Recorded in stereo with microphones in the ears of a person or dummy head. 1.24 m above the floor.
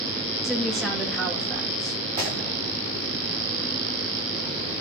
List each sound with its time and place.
0.4 s a woman speaking: centre (ahead or behind), 2 m
2.2 s breaking glass: 30° right (ahead or behind), 9.5 m